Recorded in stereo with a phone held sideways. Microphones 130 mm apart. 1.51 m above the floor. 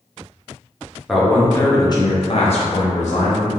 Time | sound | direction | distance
1.1 | a man speaking | centre (ahead or behind) | 0.7 m